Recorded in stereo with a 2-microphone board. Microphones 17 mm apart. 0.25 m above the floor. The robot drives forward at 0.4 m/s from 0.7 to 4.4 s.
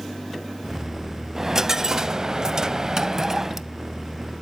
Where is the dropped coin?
25° right (ahead or behind), 0.7 m.